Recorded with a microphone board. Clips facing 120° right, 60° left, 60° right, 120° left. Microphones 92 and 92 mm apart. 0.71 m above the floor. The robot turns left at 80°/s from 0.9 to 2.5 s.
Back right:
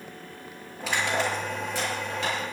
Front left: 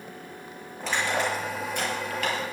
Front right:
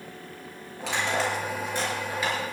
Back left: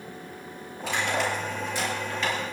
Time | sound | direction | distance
0.8 | crushing | 35° right | 5.5 m